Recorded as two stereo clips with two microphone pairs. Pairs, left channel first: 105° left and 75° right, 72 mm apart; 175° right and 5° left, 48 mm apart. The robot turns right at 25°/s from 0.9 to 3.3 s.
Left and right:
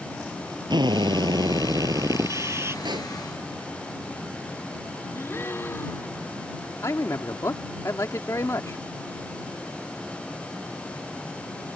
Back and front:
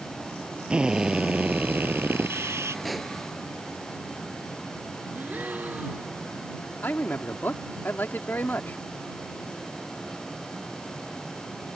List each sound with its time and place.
0.7 s a drill: 65° right; by 2.8 s 20° right
2.9 s a pop: 85° right; by 3.1 s 80° right
5.1 s a gasp: 55° left
6.8 s a man speaking: 145° left